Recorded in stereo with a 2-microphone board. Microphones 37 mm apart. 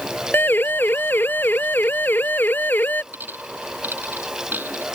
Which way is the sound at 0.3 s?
80° left.